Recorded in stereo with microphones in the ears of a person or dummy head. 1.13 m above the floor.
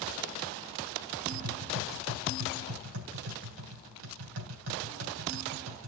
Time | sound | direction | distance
1.3 | tapping | 75° right (ahead or behind) | 3 m